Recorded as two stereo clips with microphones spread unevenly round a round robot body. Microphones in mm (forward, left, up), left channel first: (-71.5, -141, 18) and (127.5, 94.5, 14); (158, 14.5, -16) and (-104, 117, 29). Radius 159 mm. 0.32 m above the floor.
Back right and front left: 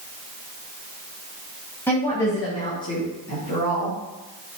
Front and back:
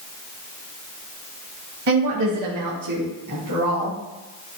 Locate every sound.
1.9 s a woman speaking: 150° left, 2 m; by 4.0 s 160° left, 4.5 m